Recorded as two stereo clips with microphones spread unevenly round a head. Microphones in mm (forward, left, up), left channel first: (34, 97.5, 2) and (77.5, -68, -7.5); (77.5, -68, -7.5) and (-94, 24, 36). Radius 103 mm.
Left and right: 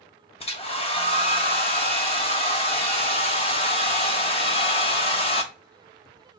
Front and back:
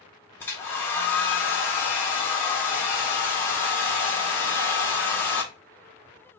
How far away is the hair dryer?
About 1.2 m.